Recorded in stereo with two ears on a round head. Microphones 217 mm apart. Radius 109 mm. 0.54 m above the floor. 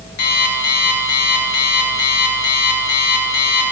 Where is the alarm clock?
80° left, 4 m.